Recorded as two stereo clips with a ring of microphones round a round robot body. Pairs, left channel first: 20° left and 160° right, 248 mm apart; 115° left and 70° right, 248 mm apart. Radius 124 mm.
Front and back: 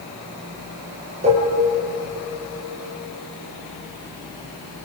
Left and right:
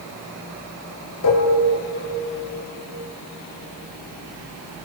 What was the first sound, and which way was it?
Dishes clattering, 140° left.